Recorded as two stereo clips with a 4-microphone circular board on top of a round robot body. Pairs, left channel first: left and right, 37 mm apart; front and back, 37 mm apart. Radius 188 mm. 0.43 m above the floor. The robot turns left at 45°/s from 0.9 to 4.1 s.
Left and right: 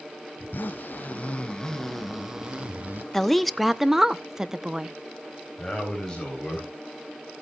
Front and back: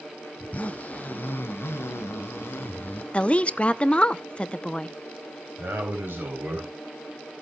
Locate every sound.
0.4 s a zipper: 50° left, 0.8 m; by 3.0 s 45° right, 0.8 m
3.1 s a woman speaking: 20° left, 0.9 m; by 5.0 s 25° right, 0.9 m
5.6 s a man speaking: 160° left, 4 m